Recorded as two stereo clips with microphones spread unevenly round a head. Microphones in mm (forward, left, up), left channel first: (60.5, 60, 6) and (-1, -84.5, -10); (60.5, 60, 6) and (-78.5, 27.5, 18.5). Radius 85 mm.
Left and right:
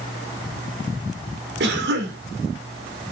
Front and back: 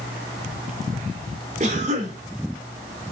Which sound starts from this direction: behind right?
A cough, at 1.6 s.